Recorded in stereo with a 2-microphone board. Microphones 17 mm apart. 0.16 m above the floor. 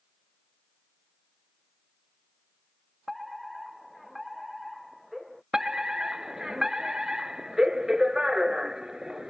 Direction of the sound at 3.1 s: Centre (ahead or behind).